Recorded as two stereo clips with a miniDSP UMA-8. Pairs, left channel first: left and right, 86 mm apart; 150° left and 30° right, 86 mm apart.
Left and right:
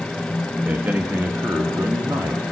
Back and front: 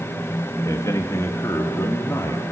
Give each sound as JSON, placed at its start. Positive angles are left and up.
{"t": 0.7, "sound": "a man speaking", "azimuth_deg": -160, "distance_m": 2.5}